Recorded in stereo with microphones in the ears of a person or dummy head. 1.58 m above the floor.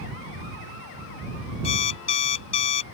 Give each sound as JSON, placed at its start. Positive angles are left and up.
{"t": 1.6, "sound": "an alarm clock", "side_deg": 35}